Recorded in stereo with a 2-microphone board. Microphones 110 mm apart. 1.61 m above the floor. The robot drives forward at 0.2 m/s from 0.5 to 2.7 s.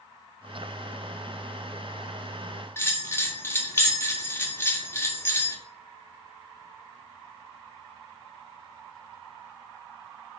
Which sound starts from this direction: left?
A bell, at 2.8 s.